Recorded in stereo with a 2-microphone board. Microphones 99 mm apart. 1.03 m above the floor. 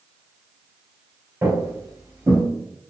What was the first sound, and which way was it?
Footsteps, 25° right (ahead or behind).